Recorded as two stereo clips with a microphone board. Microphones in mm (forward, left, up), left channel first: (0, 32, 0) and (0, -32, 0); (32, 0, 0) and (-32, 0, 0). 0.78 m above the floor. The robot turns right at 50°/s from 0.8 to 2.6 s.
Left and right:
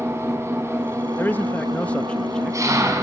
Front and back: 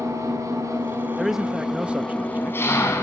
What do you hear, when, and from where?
0.0 s an engine running: 140° right, 5.5 m; by 3.0 s 50° right, 5.5 m
1.2 s a man speaking: 95° left, 0.8 m; by 2.9 s 165° left, 0.8 m